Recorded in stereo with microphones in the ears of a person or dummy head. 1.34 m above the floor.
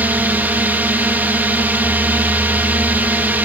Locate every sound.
0.0 s a drone: 5° right (ahead or behind)